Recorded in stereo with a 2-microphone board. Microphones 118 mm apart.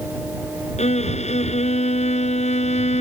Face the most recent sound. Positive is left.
turn(degrees=70)  # may be behind; listen again after turning